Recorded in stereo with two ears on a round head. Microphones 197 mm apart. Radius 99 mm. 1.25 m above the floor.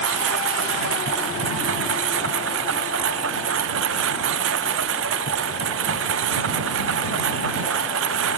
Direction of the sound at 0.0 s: 60° right (ahead or behind).